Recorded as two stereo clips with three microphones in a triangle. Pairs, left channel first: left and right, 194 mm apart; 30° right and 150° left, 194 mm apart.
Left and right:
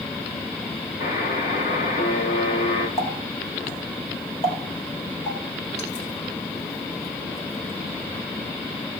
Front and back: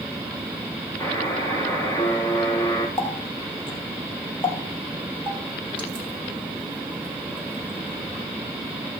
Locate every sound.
1.0 s a buzzer: 45° left, 4 m
3.0 s a running tap: 30° left, 3 m